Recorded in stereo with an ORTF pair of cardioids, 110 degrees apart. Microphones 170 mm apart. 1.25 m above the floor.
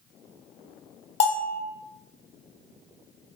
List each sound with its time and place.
1.2 s a bell: 40° left, 0.5 m